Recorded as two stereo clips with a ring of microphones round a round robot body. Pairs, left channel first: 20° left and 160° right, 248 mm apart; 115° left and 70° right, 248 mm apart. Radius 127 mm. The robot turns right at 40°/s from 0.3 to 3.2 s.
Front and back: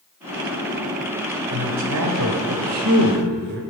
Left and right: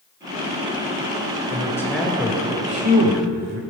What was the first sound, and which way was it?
A man speaking, straight behind.